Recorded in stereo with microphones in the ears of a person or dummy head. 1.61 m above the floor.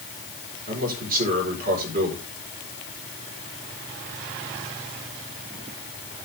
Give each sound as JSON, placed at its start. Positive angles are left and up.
{"t": 0.7, "sound": "a man speaking", "side_deg": -50, "distance_m": 4.5}